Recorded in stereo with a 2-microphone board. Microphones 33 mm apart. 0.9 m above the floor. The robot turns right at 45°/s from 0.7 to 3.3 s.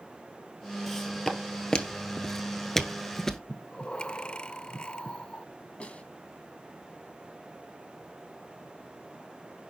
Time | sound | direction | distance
0.9 | footsteps | 5° left (ahead or behind) | 1.5 m
3.5 | breathing | 25° left (ahead or behind) | 0.6 m
5.8 | a snare drum | 35° left (ahead or behind) | 2.0 m